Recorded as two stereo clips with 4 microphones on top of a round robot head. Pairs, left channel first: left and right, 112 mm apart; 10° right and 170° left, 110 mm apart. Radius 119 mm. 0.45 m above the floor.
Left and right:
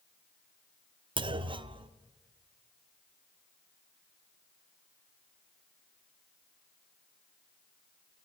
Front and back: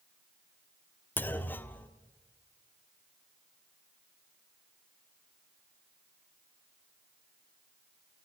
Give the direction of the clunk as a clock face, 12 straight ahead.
3 o'clock.